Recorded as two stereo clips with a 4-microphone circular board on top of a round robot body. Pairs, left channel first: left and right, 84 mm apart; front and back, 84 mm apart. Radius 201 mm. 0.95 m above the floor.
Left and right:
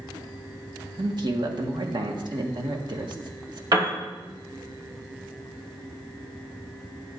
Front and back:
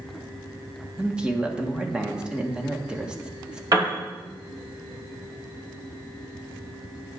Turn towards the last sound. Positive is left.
turn(degrees=-130)